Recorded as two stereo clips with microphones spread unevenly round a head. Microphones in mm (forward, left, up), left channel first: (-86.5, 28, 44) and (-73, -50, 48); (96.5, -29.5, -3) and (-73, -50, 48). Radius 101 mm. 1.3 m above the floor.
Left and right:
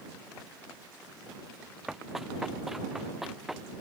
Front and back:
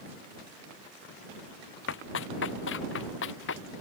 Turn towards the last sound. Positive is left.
turn(degrees=5)